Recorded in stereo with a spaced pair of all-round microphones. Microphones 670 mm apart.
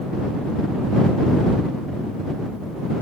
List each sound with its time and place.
Only background noise.